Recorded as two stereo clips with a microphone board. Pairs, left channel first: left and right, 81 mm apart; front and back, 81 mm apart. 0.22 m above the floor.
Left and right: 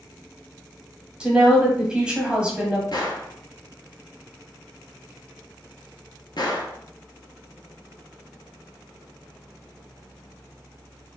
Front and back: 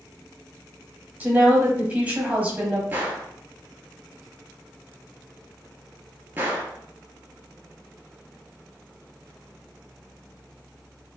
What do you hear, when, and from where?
1.2 s a woman speaking: 145° right, 1.0 m
2.9 s a gunshot: 115° left, 0.9 m